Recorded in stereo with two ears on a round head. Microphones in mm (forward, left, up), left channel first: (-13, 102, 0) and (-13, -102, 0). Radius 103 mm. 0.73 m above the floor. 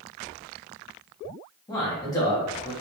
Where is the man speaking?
15° left (ahead or behind), 1.3 m.